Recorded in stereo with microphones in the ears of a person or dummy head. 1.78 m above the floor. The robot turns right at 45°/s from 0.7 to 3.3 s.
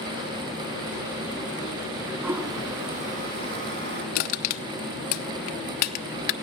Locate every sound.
2.2 s a toilet flushing: 15° right (ahead or behind), 3.5 m; by 4.0 s 55° right (ahead or behind), 3.5 m
4.2 s crushing: 45° left (ahead or behind), 0.9 m